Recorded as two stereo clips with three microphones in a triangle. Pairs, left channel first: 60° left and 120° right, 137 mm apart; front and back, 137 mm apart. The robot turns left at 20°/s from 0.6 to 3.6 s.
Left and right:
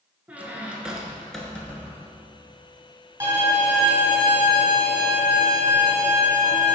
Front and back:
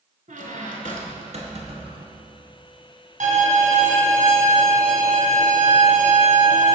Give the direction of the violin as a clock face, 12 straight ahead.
6 o'clock.